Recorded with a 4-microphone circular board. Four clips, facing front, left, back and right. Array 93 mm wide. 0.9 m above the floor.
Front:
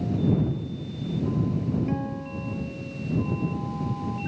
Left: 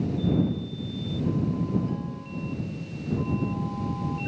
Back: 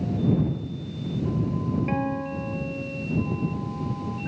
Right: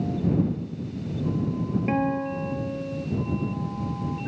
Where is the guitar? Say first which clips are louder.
Right 9 dB, back 3 dB; 110° right.